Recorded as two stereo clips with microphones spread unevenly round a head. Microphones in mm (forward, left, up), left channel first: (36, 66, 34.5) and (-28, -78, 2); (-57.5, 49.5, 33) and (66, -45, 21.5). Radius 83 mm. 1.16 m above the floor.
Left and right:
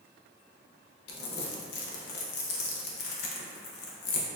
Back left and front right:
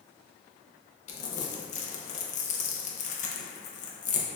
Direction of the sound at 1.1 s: 95° left.